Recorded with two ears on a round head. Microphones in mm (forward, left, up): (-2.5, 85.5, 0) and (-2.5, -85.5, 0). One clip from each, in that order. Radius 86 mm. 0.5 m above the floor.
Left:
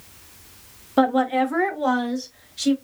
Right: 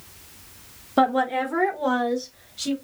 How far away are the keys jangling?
I don't hear keys jangling.